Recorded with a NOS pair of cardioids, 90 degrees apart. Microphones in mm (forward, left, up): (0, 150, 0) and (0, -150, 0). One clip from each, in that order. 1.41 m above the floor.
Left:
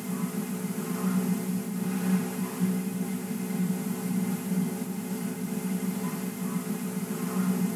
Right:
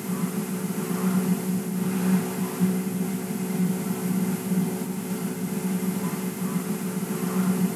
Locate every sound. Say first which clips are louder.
0.0 s a fan: right 4 dB; 25° right, 0.8 m